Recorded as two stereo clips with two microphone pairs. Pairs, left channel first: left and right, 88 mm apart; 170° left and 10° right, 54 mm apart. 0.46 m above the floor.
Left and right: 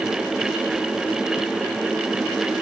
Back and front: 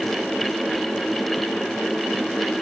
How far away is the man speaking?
I don't hear a man speaking.